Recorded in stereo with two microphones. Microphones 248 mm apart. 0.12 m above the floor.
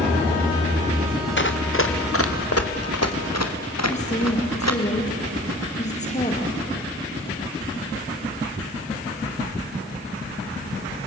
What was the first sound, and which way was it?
Running footsteps, 45° left (ahead or behind).